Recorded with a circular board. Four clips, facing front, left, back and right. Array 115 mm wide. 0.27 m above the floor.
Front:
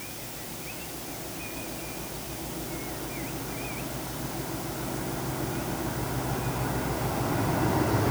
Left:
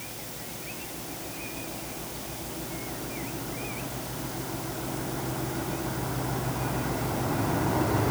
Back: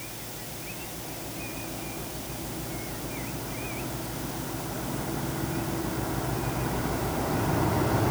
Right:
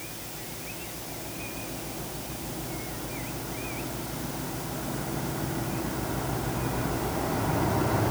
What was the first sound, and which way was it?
Only background noise.